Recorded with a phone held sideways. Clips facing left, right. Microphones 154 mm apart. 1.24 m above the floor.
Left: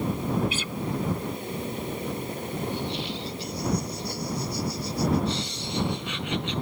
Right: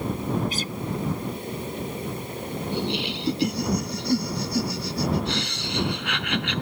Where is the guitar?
40° right (ahead or behind).